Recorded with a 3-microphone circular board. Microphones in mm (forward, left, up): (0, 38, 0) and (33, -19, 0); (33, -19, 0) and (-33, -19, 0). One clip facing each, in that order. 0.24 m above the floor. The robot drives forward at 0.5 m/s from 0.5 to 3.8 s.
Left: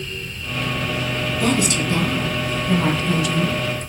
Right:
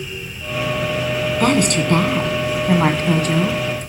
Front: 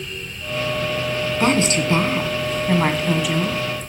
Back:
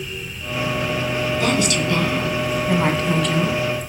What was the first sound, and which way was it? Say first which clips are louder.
A woman speaking: right 4 dB, front 4 dB; 50° right.